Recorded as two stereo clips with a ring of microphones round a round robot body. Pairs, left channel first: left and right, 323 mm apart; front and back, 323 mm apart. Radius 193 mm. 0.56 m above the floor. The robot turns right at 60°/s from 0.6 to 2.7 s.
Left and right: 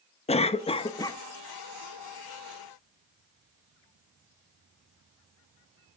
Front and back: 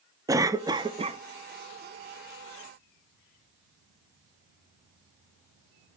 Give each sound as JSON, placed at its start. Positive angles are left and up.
{"t": 0.3, "sound": "a cough", "azimuth_deg": 120, "distance_m": 0.7}